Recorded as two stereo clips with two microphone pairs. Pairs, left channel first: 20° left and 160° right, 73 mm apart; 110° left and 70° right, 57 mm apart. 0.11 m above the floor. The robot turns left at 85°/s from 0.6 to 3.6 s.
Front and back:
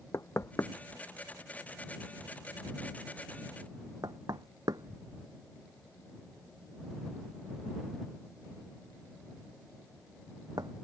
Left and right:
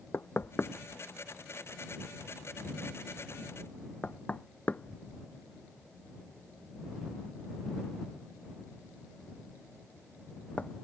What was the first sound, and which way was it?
Knocking, 65° left.